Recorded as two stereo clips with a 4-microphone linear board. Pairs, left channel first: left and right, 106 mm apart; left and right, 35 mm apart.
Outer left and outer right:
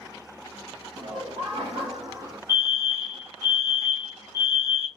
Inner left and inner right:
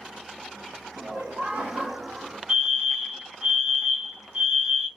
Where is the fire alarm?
25° right (ahead or behind), 2 m.